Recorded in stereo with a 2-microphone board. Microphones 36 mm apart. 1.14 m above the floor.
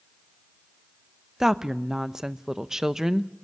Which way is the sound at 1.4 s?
15° right (ahead or behind).